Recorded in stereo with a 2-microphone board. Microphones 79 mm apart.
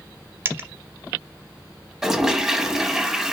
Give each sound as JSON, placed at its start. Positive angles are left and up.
{"t": 0.5, "sound": "a dropped coin", "side_deg": -30, "distance_m": 0.7}
{"t": 2.0, "sound": "a toilet flushing", "side_deg": -5, "distance_m": 0.9}